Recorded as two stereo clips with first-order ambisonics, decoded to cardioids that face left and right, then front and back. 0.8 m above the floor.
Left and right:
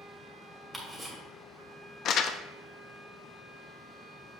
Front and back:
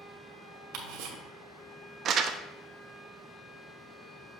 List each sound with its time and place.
0.7 s ticking: 175° right, 1.5 m
2.0 s crumpling: 135° left, 0.5 m